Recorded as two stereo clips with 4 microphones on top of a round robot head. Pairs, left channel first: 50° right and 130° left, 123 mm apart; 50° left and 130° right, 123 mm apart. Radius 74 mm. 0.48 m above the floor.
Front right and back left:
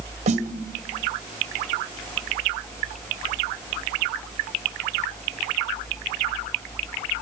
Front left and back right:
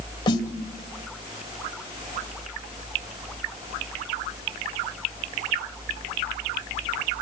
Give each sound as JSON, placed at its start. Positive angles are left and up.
{"t": 0.3, "sound": "a snare drum", "azimuth_deg": 100, "distance_m": 1.8}